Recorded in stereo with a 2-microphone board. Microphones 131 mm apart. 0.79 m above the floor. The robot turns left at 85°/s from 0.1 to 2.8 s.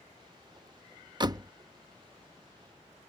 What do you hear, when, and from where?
1.2 s a door slam: 35° right (ahead or behind); by 1.5 s 20° right (ahead or behind)